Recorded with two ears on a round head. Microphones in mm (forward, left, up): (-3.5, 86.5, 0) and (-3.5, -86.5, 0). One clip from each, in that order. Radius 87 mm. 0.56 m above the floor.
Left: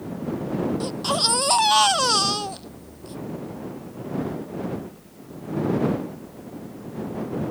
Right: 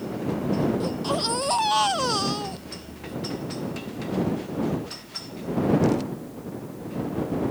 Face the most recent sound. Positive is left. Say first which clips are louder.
# left 3 dB
turn(degrees=40)  # may be behind; listen again after turning